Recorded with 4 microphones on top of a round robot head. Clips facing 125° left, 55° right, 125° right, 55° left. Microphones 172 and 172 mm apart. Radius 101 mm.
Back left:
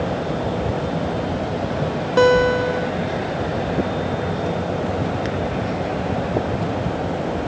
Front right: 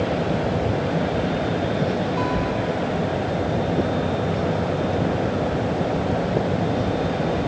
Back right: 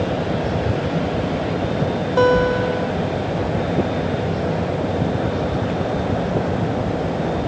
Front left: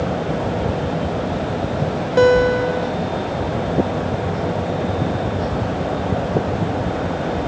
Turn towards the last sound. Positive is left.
turn(degrees=130)